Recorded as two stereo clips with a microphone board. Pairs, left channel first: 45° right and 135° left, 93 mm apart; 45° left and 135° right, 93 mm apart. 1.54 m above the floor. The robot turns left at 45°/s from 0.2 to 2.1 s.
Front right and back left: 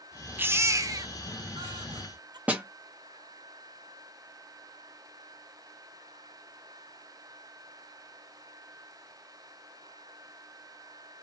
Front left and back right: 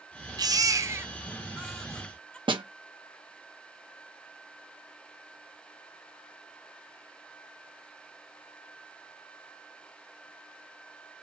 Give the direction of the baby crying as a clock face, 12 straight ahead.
5 o'clock.